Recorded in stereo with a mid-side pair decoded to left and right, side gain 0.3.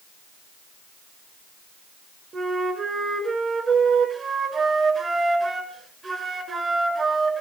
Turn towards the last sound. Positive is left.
turn(degrees=-55)